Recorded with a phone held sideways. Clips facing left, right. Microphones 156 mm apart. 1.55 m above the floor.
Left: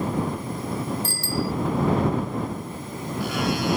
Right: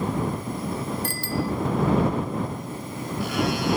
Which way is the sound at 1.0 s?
65° right (ahead or behind).